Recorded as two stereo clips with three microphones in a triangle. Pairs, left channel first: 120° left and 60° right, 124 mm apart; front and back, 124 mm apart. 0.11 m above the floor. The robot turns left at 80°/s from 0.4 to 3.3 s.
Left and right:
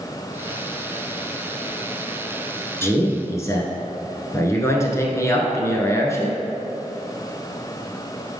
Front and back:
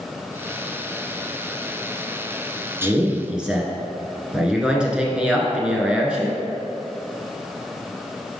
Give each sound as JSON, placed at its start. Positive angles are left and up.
{"t": 2.8, "sound": "a man speaking", "azimuth_deg": 145, "distance_m": 1.1}